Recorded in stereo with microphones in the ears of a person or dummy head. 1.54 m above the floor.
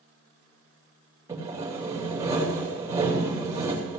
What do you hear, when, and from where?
1.3 s sawing: 20° right (ahead or behind), 3 m